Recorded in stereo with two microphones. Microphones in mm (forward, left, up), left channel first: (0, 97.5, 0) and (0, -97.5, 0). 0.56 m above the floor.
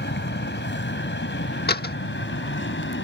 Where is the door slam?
55° left (ahead or behind).